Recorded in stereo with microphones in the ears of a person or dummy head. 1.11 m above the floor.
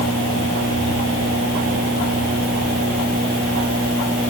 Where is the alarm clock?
I don't hear an alarm clock.